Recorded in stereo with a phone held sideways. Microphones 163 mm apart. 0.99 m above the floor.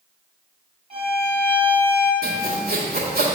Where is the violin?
40° right (ahead or behind), 1.5 m.